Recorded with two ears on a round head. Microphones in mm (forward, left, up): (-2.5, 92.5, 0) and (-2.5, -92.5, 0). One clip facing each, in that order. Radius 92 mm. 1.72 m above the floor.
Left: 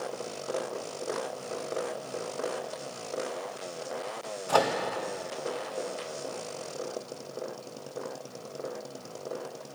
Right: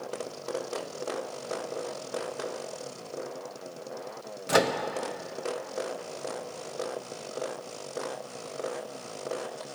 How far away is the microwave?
About 0.6 m.